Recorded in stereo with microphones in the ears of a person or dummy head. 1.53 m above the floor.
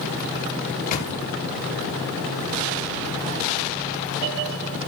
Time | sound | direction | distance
0.7 | a microwave | 50° left (ahead or behind) | 1.1 m